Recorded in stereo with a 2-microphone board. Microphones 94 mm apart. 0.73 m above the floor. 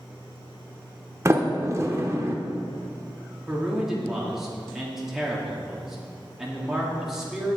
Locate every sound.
1.2 s a sliding door: 30° right (ahead or behind), 0.8 m
3.5 s a man speaking: 5° right (ahead or behind), 1.5 m